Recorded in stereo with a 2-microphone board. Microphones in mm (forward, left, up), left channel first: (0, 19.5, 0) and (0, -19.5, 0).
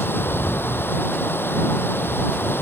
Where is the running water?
65° left (ahead or behind).